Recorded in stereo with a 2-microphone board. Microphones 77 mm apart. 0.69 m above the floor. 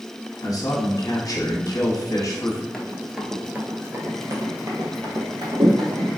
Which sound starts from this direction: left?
A man speaking, at 0.4 s.